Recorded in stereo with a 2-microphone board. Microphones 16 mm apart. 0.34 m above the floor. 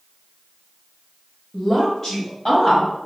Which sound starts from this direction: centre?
A woman speaking, at 1.5 s.